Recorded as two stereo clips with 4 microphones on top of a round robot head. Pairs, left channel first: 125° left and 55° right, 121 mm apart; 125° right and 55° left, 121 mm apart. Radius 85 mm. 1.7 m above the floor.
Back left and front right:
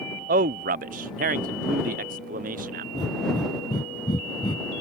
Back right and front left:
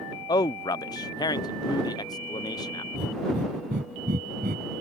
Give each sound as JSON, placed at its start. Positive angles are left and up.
{"t": 0.3, "sound": "a man speaking", "azimuth_deg": -65}
{"t": 2.9, "sound": "breathing", "azimuth_deg": 70}